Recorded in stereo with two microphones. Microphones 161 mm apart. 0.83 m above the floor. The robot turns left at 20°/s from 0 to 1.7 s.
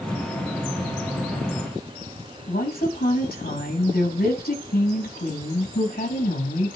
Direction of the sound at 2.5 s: 70° left (ahead or behind).